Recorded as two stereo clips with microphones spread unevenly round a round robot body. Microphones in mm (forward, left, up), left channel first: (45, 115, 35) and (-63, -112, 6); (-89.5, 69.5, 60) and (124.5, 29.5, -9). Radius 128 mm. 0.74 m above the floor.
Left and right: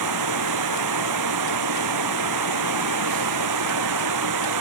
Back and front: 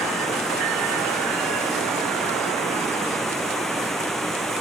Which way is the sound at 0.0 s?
100° right.